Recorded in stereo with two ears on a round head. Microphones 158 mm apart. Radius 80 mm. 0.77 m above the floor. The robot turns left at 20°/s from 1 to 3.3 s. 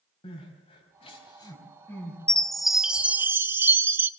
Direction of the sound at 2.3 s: 5° left (ahead or behind).